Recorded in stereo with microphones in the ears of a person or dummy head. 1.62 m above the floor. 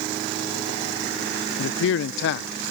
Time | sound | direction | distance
1.6 | a man speaking | 65° left (ahead or behind) | ?